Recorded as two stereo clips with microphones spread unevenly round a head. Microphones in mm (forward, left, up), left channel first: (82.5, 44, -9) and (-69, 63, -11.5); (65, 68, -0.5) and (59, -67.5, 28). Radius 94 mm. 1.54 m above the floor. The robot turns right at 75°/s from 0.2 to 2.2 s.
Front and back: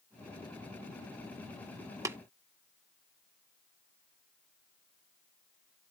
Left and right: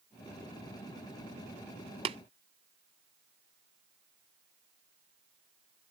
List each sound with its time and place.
2.0 s tapping: 120° right; by 2.2 s 110° right